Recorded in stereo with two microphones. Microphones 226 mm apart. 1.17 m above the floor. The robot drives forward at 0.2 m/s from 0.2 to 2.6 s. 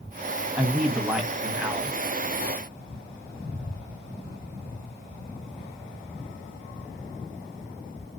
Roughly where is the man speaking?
Centre.